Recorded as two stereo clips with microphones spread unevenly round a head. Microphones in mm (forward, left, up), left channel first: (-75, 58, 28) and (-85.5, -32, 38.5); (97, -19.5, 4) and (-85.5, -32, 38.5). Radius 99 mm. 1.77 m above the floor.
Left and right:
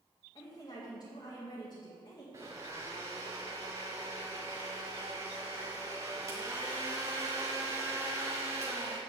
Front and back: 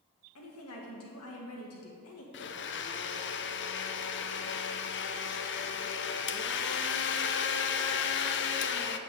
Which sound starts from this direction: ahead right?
A blender, at 2.3 s.